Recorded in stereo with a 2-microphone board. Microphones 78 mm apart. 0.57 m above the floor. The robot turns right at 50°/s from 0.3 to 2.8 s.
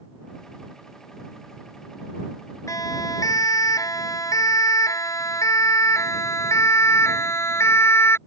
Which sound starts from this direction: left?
A siren, at 2.7 s.